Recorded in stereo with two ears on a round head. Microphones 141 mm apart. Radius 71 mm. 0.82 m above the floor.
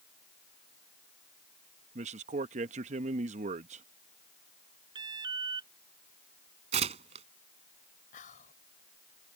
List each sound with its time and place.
1.9 s a man speaking: 45° right (ahead or behind)
5.0 s an alarm: 30° right (ahead or behind)
6.7 s tearing paper: 40° right (ahead or behind)
8.1 s whispering: 55° left (ahead or behind)